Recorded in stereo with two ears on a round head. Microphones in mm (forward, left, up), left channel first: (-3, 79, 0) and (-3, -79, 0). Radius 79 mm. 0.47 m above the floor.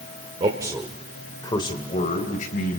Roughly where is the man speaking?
Right.